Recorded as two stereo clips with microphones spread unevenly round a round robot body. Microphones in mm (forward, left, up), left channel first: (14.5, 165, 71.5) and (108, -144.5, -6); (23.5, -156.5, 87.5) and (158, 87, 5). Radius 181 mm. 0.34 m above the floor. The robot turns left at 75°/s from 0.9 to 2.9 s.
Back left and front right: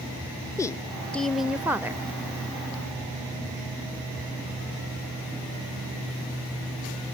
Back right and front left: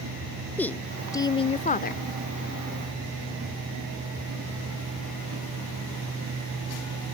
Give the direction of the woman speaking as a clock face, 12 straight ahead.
12 o'clock.